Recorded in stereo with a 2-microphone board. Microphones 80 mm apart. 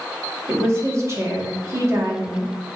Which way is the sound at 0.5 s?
40° right (ahead or behind).